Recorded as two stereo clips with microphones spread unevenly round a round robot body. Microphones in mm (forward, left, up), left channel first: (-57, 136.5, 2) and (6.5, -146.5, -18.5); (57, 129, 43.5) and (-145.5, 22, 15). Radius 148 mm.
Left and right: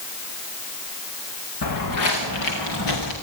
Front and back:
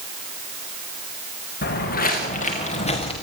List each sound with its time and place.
1.6 s footsteps: 70° left, 5 m; by 3.1 s 90° left, 6 m